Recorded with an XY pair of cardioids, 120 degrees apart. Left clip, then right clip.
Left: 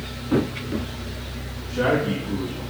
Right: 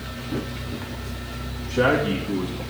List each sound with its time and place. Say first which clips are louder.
1.7 s a man speaking: right 2 dB; 15° right, 1.8 m